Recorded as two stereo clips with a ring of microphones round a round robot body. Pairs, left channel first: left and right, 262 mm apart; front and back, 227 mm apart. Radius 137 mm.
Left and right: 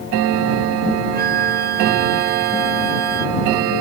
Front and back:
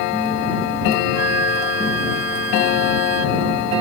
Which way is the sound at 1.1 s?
145° right.